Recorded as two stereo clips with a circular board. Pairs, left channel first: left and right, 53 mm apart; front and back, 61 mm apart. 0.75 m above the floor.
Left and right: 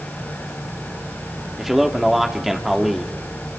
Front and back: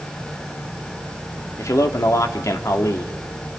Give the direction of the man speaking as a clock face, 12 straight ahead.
12 o'clock.